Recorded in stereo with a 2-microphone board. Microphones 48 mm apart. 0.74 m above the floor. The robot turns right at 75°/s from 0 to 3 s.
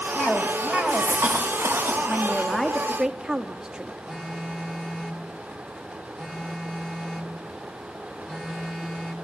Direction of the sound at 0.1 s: 165° left.